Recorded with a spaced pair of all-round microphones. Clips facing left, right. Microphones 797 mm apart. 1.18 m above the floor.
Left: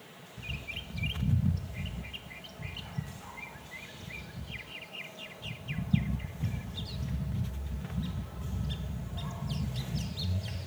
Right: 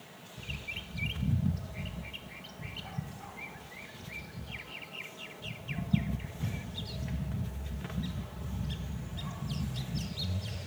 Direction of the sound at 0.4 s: 10° left (ahead or behind).